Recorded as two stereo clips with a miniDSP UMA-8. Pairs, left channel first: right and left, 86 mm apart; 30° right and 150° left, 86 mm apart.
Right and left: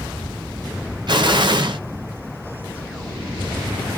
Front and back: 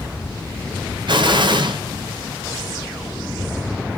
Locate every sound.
1.1 s an explosion: 125° left, 0.6 m